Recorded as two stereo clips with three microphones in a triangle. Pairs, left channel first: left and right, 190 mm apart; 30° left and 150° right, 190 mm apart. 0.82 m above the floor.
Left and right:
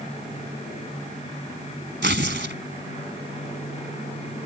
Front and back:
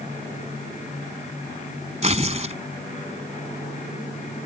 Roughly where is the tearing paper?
Right.